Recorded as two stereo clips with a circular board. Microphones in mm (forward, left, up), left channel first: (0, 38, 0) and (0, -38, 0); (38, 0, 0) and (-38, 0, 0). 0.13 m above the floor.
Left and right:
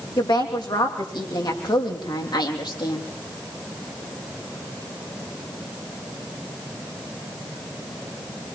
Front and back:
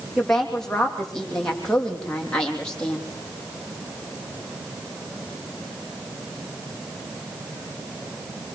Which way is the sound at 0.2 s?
85° left.